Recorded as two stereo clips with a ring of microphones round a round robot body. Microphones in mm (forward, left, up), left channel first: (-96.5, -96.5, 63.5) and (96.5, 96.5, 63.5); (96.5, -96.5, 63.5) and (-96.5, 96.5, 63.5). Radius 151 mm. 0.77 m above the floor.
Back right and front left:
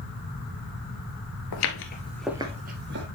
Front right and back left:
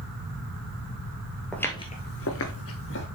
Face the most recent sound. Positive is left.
turn(degrees=0)